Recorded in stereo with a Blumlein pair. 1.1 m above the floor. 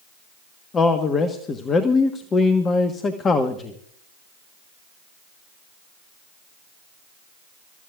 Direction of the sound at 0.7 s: 20° left.